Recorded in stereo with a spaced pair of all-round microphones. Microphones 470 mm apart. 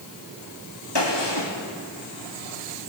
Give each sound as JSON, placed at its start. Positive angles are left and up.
{"t": 0.9, "sound": "a gunshot", "side_deg": 60, "distance_m": 3.5}